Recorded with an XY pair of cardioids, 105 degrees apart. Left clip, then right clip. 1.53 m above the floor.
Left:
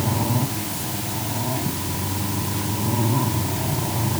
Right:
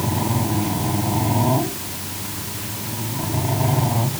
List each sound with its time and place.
Only background noise.